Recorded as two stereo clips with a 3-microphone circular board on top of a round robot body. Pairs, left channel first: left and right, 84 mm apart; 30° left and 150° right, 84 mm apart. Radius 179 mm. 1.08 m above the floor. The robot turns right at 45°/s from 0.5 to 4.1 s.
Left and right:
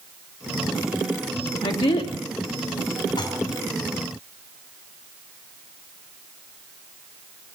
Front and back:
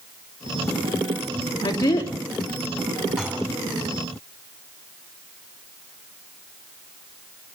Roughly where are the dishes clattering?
Behind left.